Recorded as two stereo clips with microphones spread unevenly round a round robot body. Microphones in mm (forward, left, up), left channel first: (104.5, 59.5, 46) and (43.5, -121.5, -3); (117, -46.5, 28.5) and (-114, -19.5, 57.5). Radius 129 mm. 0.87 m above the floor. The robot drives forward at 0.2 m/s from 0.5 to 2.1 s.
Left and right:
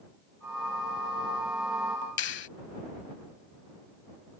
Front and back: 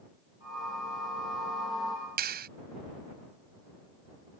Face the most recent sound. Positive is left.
turn(degrees=120)